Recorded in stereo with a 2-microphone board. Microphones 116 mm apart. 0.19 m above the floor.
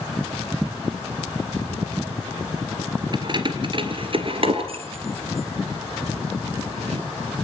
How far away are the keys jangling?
About 3 m.